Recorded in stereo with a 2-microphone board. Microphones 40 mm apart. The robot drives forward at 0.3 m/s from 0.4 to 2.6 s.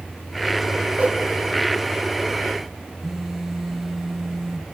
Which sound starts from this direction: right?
A whoosh, at 1.0 s.